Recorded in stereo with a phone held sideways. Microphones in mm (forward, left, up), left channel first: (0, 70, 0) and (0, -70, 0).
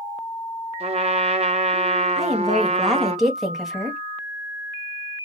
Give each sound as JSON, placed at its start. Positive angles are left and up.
{"t": 0.8, "sound": "a trumpet", "side_deg": -45, "distance_m": 0.6}
{"t": 2.2, "sound": "a woman speaking", "side_deg": 0, "distance_m": 1.7}